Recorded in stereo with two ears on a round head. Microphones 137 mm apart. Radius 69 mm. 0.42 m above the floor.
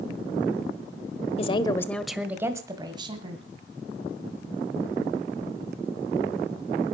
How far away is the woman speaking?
About 1.4 m.